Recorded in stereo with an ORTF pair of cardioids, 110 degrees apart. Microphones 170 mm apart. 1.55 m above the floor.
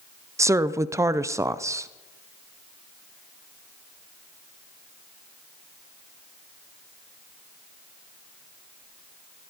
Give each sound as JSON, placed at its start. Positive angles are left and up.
{"t": 0.4, "sound": "a woman speaking", "azimuth_deg": -15, "distance_m": 0.7}